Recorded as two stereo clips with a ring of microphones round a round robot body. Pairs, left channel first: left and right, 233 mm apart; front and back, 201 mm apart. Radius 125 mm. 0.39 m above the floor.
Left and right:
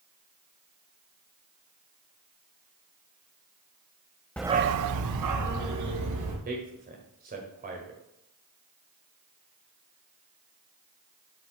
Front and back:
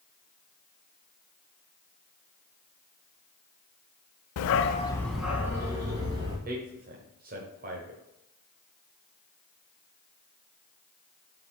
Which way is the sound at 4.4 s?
5° left.